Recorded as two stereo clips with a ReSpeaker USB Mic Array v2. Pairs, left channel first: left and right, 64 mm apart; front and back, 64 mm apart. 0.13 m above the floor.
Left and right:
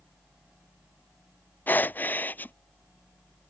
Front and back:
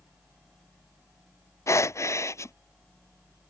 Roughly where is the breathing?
Ahead left.